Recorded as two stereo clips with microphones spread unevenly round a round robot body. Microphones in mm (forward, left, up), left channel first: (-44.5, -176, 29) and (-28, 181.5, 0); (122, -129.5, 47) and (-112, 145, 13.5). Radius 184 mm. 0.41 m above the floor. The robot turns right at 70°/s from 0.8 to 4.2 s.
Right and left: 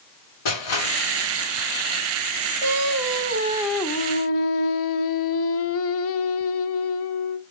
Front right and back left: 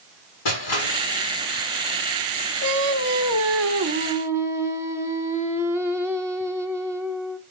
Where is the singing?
100° left, 1.3 m; by 7.4 s 145° right, 1.3 m.